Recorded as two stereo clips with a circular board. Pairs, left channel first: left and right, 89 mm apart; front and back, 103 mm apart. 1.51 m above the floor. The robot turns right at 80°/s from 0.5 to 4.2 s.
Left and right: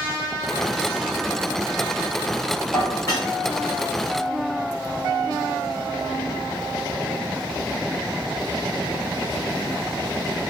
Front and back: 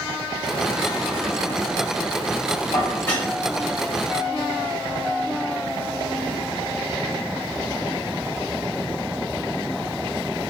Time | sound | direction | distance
2.7 | dishes clattering | 35° left | 1.3 m